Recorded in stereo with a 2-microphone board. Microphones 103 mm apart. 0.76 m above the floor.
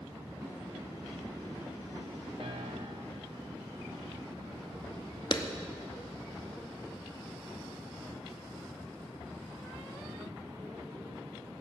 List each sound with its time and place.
0.4 s a snare drum: 25° right (ahead or behind), 5.5 m
2.4 s a piano: 65° right (ahead or behind), 1.1 m
5.3 s a clap: 45° left (ahead or behind), 0.8 m